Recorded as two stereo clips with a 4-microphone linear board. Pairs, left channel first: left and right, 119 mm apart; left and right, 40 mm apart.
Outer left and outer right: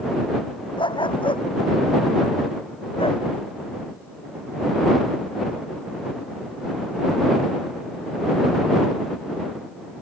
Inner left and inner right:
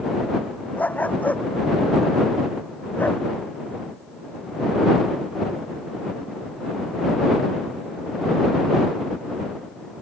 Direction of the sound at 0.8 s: 45° left (ahead or behind).